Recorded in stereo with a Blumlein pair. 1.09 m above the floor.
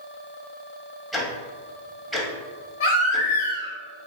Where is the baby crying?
60° left, 1.0 m.